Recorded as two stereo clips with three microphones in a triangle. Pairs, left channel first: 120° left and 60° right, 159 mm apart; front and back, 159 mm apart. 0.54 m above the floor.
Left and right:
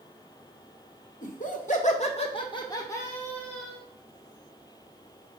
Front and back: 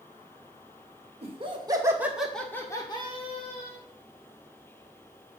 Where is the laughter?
140° left, 2 m; by 3.8 s 30° left, 2.5 m.